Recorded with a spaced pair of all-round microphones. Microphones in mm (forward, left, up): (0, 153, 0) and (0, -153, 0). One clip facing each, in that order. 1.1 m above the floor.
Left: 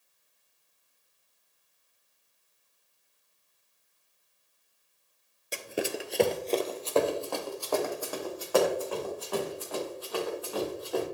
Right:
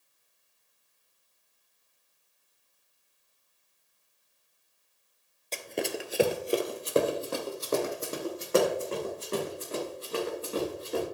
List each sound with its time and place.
5.5 s running footsteps: 10° left (ahead or behind), 1.1 m; by 11.0 s 25° right (ahead or behind), 5.5 m